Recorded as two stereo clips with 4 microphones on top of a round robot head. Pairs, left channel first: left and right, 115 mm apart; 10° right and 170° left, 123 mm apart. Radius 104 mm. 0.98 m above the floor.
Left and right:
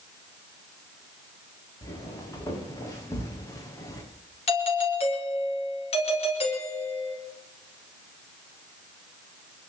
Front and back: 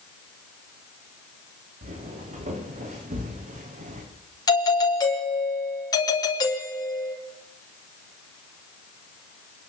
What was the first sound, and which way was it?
Footsteps, 155° left.